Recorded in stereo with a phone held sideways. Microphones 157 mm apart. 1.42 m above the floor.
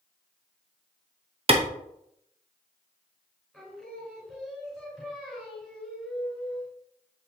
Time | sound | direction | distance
1.5 | a clap | 40° right (ahead or behind) | 0.9 m
3.5 | singing | centre (ahead or behind) | 3 m